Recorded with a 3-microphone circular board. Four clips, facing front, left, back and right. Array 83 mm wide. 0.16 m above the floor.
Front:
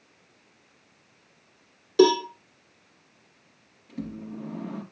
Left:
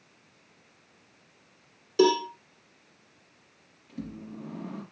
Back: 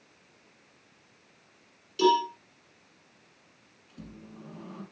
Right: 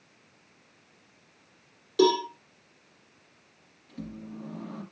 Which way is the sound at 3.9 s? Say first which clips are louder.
Left 1 dB, front 11 dB; 10° left.